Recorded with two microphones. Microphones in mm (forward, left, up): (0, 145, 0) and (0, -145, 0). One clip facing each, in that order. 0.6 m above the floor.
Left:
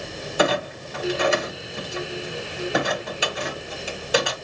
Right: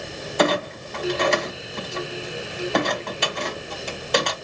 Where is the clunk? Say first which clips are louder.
Right 1 dB; 5° left (ahead or behind), 1.6 m.